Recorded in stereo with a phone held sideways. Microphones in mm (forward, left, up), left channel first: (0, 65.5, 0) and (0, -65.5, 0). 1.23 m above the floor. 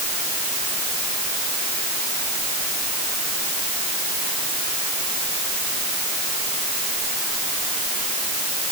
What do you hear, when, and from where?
Only background noise.